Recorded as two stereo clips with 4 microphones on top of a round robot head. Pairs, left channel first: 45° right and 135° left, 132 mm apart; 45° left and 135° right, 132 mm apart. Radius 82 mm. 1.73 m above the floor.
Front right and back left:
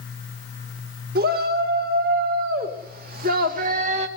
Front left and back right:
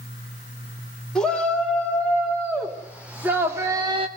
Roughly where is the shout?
Behind left.